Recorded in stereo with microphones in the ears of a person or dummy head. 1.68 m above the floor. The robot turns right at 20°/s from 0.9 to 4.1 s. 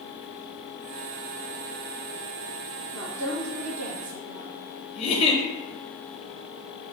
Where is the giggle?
30° left (ahead or behind), 1.0 m.